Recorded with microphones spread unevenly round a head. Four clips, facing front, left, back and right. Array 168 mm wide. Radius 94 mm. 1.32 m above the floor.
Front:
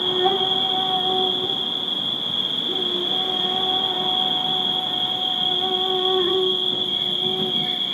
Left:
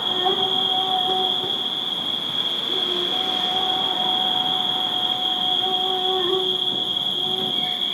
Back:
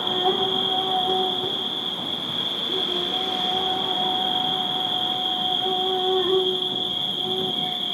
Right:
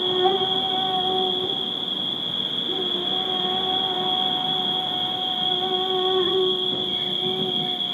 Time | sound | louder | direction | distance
0.0 | an insect | right 3 dB, front 2 dB | 40° right | 0.9 m